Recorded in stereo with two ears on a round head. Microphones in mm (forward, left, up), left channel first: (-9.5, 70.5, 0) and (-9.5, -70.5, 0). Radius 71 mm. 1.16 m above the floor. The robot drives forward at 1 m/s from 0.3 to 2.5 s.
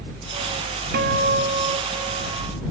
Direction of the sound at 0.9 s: 65° right (ahead or behind).